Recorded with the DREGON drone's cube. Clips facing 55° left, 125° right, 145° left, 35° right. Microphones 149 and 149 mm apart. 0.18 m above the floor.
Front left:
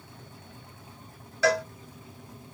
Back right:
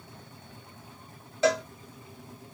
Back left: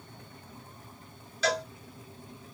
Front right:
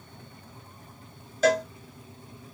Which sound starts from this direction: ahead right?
A cowbell, at 1.4 s.